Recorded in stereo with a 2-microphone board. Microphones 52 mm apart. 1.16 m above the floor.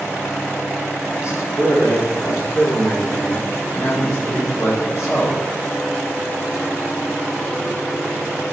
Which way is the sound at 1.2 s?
70° left (ahead or behind).